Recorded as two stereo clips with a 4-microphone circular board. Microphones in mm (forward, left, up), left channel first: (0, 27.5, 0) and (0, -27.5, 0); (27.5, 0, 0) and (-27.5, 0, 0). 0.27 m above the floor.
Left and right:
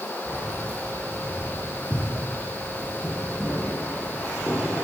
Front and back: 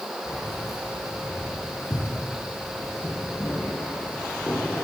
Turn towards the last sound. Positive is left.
turn(degrees=40)